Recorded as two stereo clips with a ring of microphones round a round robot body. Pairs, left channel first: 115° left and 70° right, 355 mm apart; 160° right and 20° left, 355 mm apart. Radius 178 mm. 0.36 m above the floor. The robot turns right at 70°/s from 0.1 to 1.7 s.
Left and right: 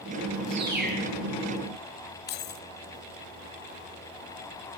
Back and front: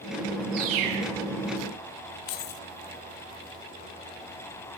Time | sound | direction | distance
0.5 | a bird | straight ahead | 6 m
2.3 | keys jangling | 175° left | 1.2 m